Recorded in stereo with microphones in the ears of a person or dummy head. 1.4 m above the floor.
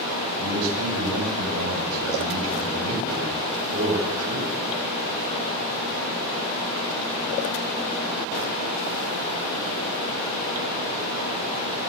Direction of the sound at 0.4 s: 80° right.